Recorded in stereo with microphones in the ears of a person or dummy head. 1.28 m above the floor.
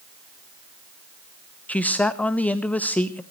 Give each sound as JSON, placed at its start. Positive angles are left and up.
{"t": 1.7, "sound": "a man speaking", "side_deg": 5, "distance_m": 1.0}